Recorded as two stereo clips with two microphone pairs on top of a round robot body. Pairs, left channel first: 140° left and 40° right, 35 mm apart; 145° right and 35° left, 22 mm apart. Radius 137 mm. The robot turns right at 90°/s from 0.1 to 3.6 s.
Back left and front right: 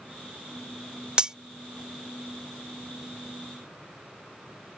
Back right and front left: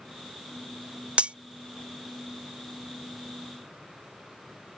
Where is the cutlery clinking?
35° left; by 1.4 s 50° left.